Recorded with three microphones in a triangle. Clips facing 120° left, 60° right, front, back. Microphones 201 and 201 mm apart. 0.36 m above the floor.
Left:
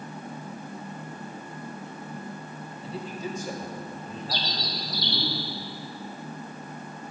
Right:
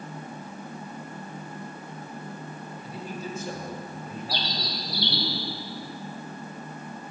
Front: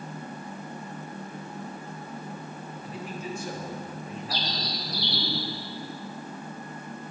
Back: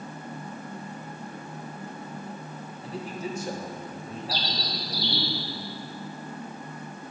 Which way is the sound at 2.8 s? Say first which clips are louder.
Left 3 dB, back 3 dB; 155° left.